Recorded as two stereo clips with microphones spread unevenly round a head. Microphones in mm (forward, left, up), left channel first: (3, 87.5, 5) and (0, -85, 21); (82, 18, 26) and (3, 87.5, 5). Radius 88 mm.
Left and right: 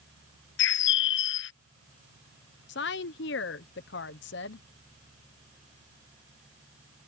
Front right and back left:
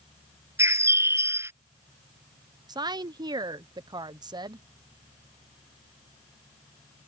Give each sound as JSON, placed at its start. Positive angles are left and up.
{"t": 0.6, "sound": "a bird", "azimuth_deg": 70}
{"t": 2.7, "sound": "a woman speaking", "azimuth_deg": 85}